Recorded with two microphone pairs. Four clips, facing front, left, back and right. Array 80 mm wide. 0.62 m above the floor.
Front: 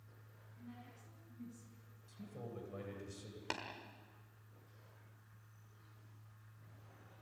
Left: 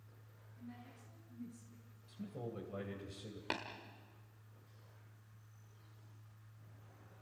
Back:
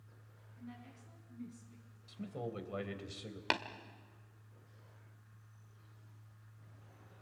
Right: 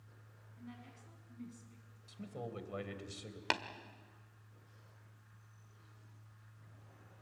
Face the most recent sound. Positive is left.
turn(degrees=-135)